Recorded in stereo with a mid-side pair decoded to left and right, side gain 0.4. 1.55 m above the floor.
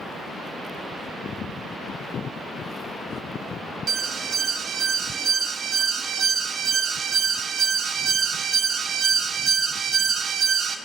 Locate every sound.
3.9 s an alarm: 60° right, 1.8 m